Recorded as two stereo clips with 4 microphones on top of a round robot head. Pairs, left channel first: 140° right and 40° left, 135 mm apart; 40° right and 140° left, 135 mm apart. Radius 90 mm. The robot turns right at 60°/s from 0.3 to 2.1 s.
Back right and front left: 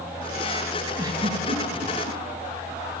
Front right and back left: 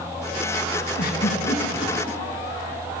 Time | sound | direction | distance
1.0 | a giggle | 35° right | 9 m